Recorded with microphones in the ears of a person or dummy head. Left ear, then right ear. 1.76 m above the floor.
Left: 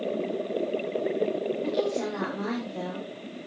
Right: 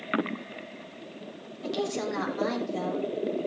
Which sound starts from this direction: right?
A woman speaking, at 1.6 s.